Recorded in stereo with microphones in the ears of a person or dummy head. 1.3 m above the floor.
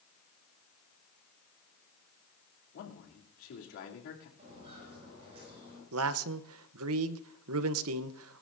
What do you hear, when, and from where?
2.7 s a man speaking: 75° left (ahead or behind), 3 m
4.4 s footsteps: 35° right (ahead or behind), 9.5 m; by 5.8 s 30° right (ahead or behind), 9 m
5.9 s a man speaking: 80° right, 0.7 m